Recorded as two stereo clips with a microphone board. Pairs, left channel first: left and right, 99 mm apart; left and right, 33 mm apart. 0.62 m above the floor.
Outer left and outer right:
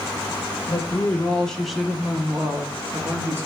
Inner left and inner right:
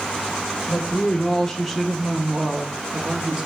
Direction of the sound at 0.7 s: 25° left (ahead or behind).